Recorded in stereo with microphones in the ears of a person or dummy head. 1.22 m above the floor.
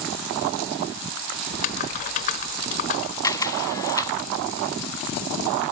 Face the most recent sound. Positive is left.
turn(degrees=20)  # may be behind; listen again after turning